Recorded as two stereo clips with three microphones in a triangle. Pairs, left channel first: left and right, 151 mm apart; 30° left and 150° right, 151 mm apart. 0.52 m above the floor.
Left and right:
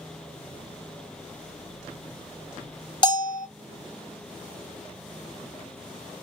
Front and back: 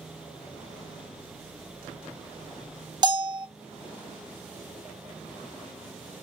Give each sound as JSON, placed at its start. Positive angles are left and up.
{"t": 3.0, "sound": "a bell", "azimuth_deg": 150, "distance_m": 0.6}